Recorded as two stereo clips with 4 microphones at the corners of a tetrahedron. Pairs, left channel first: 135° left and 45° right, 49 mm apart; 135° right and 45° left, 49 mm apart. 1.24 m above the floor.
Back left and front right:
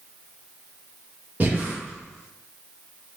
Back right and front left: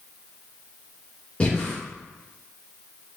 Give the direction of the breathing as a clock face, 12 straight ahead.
3 o'clock.